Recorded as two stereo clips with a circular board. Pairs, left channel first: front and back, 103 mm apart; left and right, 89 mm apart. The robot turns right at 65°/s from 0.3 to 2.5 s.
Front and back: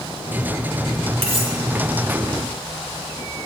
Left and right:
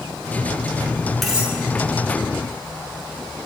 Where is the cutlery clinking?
Straight behind, 2.5 m; by 1.5 s 160° right, 2.5 m.